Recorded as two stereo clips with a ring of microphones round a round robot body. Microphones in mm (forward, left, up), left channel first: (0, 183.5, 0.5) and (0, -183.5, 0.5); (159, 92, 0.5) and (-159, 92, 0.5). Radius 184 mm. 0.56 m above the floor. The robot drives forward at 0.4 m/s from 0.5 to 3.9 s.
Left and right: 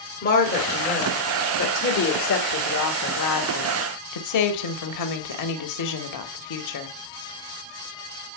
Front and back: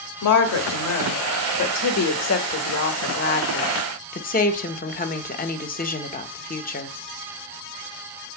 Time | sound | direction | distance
0.2 | a woman speaking | 25° left | 2 m